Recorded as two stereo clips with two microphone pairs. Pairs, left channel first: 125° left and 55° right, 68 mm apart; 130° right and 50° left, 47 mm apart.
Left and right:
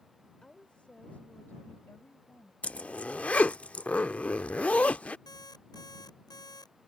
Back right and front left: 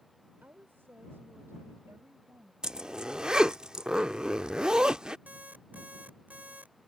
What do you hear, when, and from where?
0.4 s a woman speaking: 50° left; by 2.5 s 70° left
2.6 s a zipper: 85° left
5.3 s an alarm clock: 110° left